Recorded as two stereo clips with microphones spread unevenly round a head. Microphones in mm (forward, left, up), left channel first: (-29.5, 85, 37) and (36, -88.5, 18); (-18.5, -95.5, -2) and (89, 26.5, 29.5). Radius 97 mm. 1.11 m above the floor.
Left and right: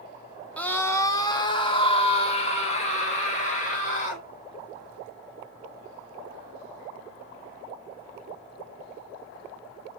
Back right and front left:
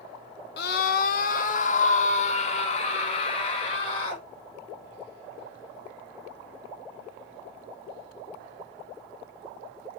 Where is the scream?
165° right, 1.5 m; by 4.2 s 160° left, 4 m.